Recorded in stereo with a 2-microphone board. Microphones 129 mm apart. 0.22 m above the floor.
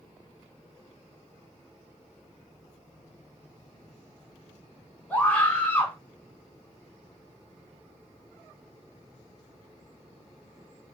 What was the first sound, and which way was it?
A scream, 10° left (ahead or behind).